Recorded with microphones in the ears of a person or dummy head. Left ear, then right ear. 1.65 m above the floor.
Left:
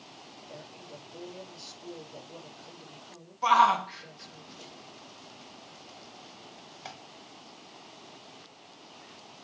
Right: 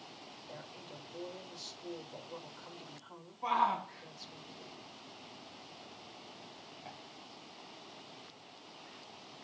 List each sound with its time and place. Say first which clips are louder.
0.5 s a woman speaking: left 3 dB; 40° right (ahead or behind), 5 m
3.4 s a shout: left 10 dB; 55° left (ahead or behind), 1.9 m